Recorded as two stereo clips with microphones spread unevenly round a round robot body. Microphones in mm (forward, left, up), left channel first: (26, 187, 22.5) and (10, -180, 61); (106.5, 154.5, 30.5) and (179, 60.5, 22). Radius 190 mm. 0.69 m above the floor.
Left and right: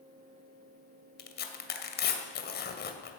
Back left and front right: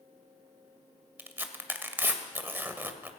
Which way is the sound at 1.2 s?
20° left.